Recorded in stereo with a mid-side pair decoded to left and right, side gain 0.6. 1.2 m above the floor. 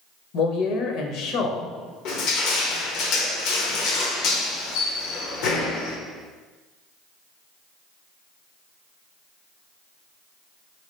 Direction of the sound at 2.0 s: 70° left.